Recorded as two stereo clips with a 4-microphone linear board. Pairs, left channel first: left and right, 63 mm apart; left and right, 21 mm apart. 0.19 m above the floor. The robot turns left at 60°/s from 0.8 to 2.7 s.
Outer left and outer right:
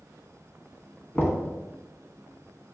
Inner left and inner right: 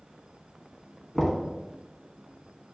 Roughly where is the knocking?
Left.